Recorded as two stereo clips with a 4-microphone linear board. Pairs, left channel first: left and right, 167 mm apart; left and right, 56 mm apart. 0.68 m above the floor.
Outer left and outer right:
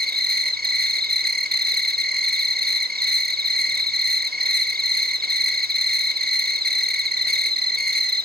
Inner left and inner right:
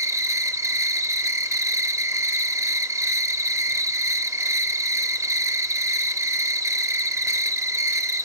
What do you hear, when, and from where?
0.0 s an insect: 60° right (ahead or behind), 0.7 m